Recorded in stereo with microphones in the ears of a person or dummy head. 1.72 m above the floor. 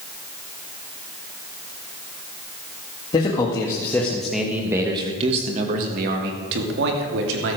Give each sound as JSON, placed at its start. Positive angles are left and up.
{"t": 3.1, "sound": "a man speaking", "side_deg": 30, "distance_m": 2.5}